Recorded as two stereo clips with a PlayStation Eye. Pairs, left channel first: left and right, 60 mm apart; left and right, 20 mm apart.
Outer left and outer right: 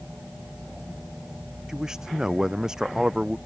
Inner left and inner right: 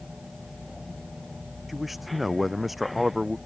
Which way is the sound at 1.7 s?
10° right (ahead or behind).